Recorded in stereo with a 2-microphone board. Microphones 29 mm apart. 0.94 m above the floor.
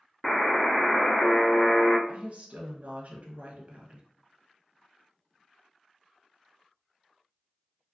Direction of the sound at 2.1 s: 55° right (ahead or behind).